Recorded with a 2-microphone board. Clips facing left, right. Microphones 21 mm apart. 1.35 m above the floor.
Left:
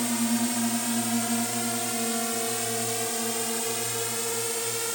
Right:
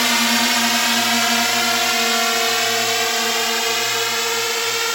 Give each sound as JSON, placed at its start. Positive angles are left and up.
{"t": 0.0, "sound": "a drone", "side_deg": -75}